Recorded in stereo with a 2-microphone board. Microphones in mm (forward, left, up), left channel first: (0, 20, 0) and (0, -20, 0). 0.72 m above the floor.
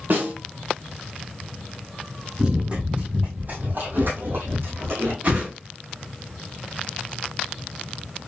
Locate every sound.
0.1 s a snare drum: 60° right (ahead or behind), 1.6 m
2.4 s running footsteps: 25° right (ahead or behind), 1.7 m; by 5.1 s 70° right (ahead or behind), 2 m
5.2 s a whoosh: 45° right (ahead or behind), 2.5 m